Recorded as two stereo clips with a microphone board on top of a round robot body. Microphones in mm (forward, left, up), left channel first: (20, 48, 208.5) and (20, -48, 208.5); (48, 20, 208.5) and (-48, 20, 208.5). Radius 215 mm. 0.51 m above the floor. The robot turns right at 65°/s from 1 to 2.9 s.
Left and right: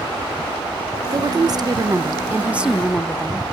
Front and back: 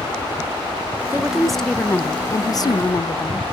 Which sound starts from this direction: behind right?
A woman speaking, at 1.1 s.